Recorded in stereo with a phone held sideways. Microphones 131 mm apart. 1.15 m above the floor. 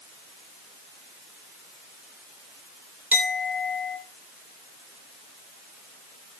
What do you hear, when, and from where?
3.1 s a clink: 10° right (ahead or behind), 3.5 m